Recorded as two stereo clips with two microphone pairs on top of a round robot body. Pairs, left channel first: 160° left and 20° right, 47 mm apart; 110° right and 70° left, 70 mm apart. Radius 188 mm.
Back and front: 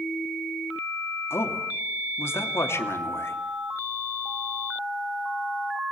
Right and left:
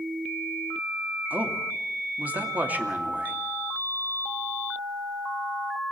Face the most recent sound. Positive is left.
turn(degrees=140)